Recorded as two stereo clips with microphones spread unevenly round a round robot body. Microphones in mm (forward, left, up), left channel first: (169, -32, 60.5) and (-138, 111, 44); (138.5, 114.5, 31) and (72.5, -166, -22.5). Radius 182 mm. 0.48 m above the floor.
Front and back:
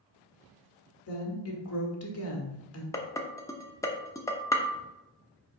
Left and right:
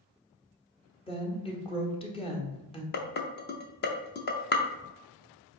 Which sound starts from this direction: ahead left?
Dishes clattering, at 2.9 s.